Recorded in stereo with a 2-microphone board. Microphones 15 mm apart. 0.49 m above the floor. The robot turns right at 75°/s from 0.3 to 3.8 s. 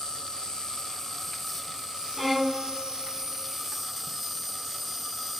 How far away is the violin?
About 0.7 m.